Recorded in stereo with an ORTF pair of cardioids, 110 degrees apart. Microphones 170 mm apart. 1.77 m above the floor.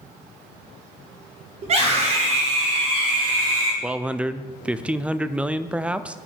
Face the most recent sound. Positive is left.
turn(degrees=-10)